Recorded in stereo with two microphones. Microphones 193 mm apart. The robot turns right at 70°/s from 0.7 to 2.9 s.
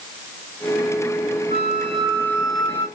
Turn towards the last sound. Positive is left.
turn(degrees=25)